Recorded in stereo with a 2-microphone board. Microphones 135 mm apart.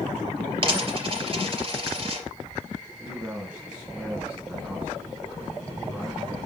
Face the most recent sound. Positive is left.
turn(degrees=-5)  # may be behind; listen again after turning